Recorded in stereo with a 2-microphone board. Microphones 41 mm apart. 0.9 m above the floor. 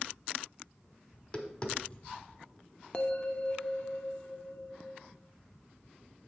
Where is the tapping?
30° left (ahead or behind), 1.2 m.